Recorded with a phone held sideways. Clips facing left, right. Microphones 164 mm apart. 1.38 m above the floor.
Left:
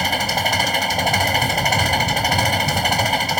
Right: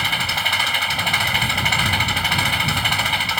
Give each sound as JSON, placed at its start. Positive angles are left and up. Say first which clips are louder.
{"t": 0.0, "sound": "an engine running", "louder": "left 6 dB", "side_deg": 40}